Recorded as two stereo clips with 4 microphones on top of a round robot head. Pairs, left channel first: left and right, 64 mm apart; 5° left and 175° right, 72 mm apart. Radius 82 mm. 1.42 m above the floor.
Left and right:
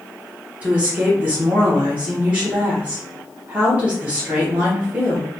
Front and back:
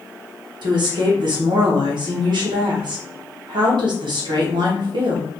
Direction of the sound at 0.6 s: 160° right.